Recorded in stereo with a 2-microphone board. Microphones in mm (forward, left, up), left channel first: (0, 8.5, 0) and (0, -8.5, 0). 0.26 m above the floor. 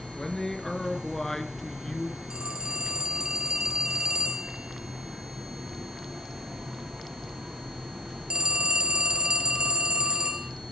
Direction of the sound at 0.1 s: 15° left (ahead or behind).